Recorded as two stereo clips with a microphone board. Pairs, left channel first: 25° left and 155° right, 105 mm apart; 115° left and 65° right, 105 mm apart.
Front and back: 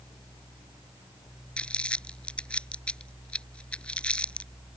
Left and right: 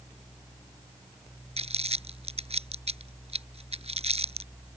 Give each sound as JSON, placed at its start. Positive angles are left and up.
{"t": 1.6, "sound": "crumpling", "azimuth_deg": -55}